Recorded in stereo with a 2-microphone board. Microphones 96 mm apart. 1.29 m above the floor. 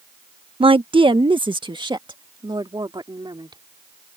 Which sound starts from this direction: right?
A woman speaking, at 0.6 s.